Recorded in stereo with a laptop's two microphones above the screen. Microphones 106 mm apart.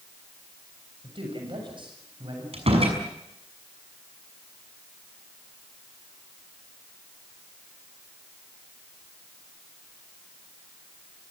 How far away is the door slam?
About 6 m.